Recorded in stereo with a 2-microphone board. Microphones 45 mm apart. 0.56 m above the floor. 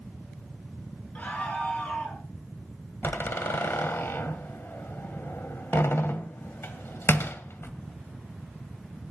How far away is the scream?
About 8.5 m.